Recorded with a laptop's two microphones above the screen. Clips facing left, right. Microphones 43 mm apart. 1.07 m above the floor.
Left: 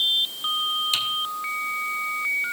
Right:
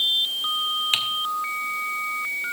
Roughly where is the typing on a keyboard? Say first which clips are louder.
Right 2 dB; right.